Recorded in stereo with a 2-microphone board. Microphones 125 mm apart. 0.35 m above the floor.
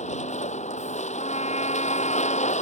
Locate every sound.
0.0 s a vehicle: 75° left (ahead or behind)
1.2 s a trumpet: 75° left (ahead or behind)